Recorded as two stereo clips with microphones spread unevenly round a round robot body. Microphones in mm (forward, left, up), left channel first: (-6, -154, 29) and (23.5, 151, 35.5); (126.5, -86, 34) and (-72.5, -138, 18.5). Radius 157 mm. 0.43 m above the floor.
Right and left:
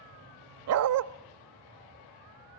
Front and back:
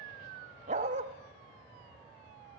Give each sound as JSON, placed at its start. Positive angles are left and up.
{"t": 0.7, "sound": "a dog barking", "azimuth_deg": 130, "distance_m": 0.7}